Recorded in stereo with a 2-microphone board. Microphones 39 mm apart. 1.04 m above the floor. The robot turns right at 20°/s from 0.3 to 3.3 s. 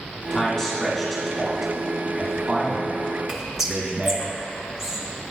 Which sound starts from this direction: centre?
Whispering, at 3.3 s.